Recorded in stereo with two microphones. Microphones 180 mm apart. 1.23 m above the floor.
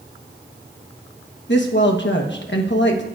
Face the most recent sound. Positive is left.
turn(degrees=85)